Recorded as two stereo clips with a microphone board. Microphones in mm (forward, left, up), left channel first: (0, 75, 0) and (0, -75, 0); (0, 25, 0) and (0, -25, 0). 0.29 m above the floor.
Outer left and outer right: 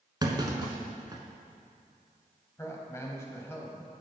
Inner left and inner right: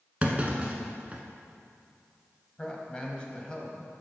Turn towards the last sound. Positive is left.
turn(degrees=20)  # may be behind; listen again after turning